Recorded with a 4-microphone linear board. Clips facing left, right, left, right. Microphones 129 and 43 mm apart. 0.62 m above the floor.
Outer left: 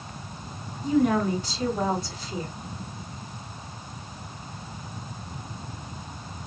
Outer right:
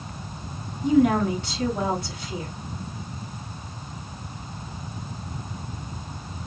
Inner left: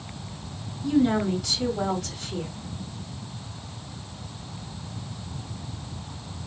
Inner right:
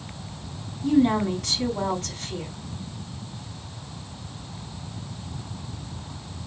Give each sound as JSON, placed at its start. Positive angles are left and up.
{"t": 0.8, "sound": "a woman speaking", "side_deg": -70, "distance_m": 5.0}